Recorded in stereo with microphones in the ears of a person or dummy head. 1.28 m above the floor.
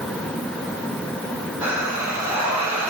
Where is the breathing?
5° right (ahead or behind), 1.1 m.